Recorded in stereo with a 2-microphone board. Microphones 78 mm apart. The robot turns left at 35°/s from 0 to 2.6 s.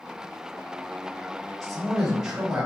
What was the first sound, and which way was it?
A man speaking, centre (ahead or behind).